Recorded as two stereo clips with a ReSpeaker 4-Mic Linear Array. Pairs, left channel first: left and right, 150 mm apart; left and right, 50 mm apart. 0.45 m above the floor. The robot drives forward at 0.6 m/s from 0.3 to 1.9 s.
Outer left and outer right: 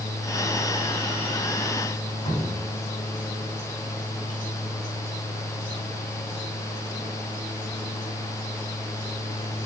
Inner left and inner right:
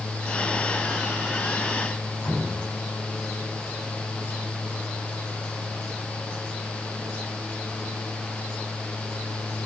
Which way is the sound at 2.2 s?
55° left (ahead or behind).